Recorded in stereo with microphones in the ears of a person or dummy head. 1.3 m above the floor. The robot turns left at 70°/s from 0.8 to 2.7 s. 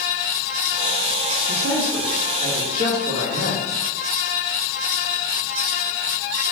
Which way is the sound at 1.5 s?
55° right.